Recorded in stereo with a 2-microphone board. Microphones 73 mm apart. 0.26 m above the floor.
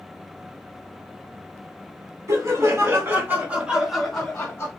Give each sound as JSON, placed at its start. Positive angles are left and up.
{"t": 2.3, "sound": "laughter", "side_deg": -45, "distance_m": 1.9}